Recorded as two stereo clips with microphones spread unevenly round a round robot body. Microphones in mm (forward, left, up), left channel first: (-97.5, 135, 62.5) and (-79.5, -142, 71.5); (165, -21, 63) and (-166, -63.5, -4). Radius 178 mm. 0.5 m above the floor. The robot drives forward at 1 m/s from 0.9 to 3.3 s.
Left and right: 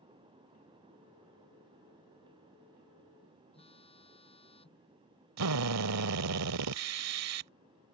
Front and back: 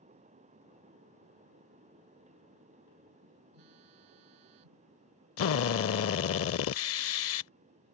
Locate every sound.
3.5 s a phone buzzing: 165° left
5.4 s a drill: 45° right